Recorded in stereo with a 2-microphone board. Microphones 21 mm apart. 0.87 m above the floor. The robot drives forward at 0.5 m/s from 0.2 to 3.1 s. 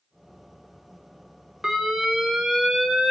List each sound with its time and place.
1.6 s an alarm: 30° right (ahead or behind), 2 m; by 3.1 s 25° right (ahead or behind), 3 m